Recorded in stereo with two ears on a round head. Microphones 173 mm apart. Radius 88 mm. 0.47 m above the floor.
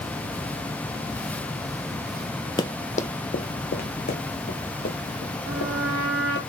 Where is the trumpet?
80° right, 3 m.